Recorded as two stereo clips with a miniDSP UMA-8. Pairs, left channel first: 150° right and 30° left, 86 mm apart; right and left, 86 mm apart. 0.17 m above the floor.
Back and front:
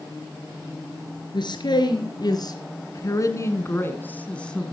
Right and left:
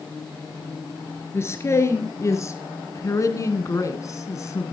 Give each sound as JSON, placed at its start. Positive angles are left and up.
{"t": 1.3, "sound": "a man speaking", "azimuth_deg": -145, "distance_m": 3.0}